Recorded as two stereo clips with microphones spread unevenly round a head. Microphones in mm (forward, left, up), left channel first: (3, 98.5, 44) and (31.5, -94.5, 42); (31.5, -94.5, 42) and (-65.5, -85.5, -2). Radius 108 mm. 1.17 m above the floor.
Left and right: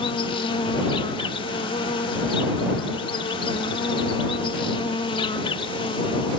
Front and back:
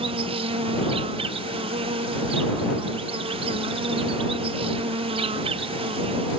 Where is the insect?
165° left.